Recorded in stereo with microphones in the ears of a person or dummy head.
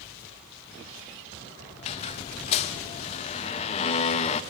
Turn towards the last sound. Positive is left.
turn(degrees=35)  # may be behind; listen again after turning